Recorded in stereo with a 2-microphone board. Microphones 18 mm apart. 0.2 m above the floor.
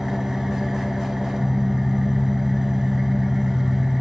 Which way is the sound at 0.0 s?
30° right (ahead or behind).